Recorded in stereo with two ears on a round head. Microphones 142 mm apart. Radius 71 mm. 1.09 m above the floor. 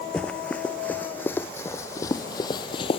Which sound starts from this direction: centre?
Running footsteps, at 0.1 s.